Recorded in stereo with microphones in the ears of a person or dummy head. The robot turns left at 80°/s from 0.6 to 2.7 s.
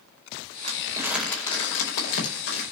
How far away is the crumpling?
About 4.5 m.